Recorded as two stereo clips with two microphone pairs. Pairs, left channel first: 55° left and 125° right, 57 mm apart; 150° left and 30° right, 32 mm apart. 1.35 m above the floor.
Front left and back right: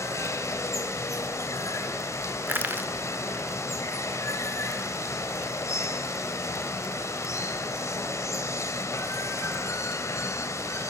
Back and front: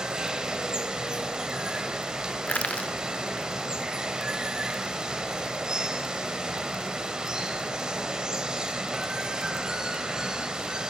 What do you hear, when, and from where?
0.0 s running water: 35° left, 2 m
2.5 s crushing: 175° right, 1.9 m